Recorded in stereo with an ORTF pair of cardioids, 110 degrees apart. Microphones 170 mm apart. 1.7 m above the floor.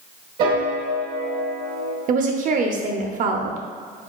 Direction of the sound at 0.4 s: 60° right.